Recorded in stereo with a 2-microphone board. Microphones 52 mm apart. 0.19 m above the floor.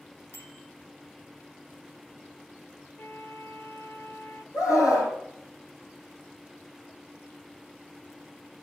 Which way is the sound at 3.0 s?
45° left (ahead or behind).